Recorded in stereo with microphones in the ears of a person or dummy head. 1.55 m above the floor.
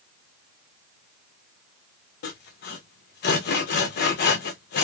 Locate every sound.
2.2 s sawing: 50° left (ahead or behind), 0.6 m